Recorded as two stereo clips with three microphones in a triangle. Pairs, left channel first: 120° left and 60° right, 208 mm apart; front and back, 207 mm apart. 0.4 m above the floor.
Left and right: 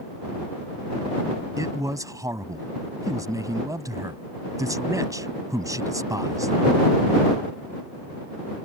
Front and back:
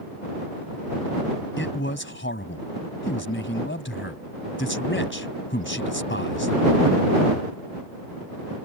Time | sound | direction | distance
1.6 | a man speaking | 10° left | ?